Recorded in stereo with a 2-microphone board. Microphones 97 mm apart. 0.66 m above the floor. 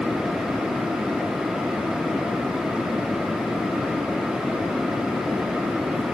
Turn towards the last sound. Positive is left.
No sound to turn to.